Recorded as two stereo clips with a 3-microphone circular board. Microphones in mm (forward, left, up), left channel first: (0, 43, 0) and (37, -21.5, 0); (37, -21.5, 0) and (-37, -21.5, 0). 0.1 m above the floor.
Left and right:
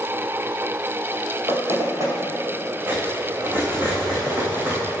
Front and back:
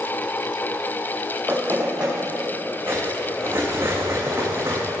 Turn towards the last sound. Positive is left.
turn(degrees=-125)